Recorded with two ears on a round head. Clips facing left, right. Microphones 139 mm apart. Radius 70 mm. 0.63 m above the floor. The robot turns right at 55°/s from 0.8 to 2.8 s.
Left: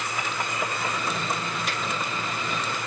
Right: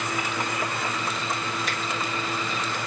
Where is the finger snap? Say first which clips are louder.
Even; 50° right (ahead or behind), 1.3 m; by 1.8 s 45° right (ahead or behind), 1.3 m.